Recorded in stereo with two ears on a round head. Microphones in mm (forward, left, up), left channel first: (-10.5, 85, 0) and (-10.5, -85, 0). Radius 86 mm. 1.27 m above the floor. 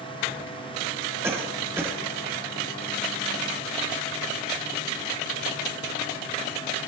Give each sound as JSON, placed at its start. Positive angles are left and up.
{"t": 1.2, "sound": "a cough", "side_deg": -15, "distance_m": 4.5}